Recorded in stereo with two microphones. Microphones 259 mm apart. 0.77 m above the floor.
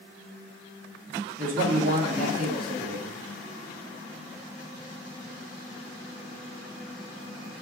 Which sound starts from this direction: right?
A man speaking, at 1.4 s.